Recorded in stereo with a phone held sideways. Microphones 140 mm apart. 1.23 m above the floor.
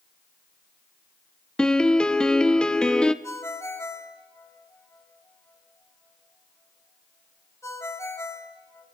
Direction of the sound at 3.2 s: 20° left (ahead or behind).